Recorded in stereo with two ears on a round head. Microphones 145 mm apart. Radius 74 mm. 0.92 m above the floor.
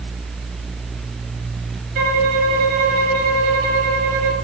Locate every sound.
1.9 s a violin: 55° right (ahead or behind), 1.3 m